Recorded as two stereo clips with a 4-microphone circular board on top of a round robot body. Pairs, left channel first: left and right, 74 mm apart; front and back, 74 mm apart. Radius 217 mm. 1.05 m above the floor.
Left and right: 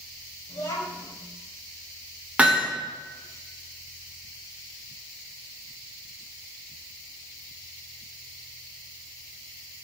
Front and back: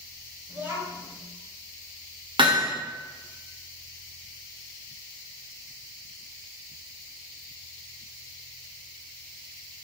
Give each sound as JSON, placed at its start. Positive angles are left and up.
{"t": 0.5, "sound": "a child speaking", "azimuth_deg": 115, "distance_m": 4.5}
{"t": 2.4, "sound": "hammering", "azimuth_deg": -165, "distance_m": 1.6}